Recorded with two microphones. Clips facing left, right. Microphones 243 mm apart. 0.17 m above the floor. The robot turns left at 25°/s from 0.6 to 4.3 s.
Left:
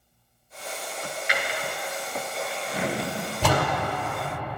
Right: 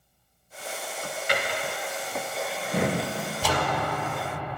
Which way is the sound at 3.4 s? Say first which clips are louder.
Left 3 dB; 70° left (ahead or behind).